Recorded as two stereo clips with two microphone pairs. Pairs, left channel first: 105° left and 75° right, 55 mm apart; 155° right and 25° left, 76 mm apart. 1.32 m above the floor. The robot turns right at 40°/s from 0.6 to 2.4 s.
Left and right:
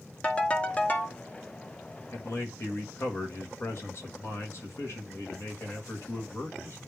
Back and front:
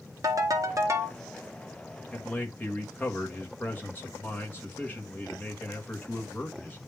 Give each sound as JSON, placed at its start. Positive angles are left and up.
{"t": 0.2, "sound": "a ringtone", "azimuth_deg": 45, "distance_m": 1.0}
{"t": 2.1, "sound": "a man speaking", "azimuth_deg": 130, "distance_m": 1.6}